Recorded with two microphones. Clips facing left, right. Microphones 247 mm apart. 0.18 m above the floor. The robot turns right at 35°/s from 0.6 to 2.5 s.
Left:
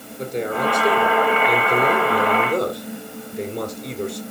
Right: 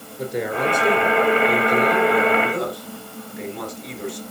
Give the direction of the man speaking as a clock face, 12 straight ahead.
12 o'clock.